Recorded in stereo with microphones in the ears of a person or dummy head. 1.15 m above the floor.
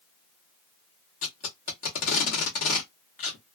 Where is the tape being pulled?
45° left (ahead or behind), 0.9 m.